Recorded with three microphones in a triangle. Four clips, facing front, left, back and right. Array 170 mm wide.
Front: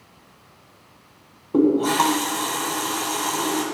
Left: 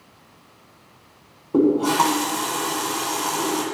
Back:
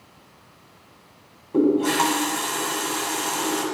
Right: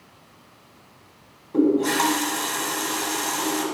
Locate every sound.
1.5 s a running tap: 55° left, 1.2 m